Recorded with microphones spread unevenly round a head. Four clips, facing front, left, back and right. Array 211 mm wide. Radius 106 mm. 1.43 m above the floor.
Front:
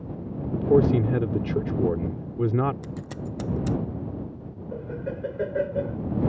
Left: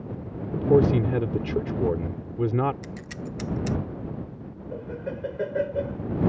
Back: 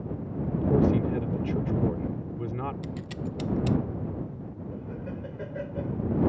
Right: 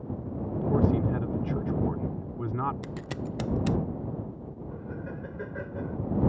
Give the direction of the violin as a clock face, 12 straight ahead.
I don't hear a violin.